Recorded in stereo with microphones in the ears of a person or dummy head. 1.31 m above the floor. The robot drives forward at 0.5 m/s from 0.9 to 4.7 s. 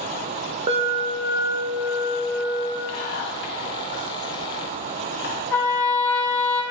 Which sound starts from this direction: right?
An alarm, at 0.7 s.